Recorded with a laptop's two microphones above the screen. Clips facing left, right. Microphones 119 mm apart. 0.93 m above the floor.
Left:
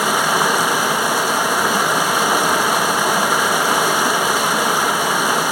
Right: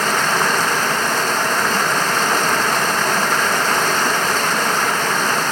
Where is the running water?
10° left (ahead or behind), 1.1 m.